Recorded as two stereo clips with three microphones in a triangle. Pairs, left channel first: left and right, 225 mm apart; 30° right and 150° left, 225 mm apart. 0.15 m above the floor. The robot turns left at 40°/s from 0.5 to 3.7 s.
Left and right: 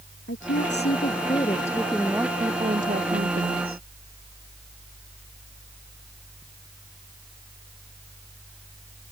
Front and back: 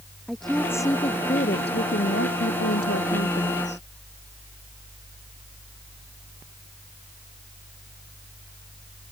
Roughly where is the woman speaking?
Ahead left.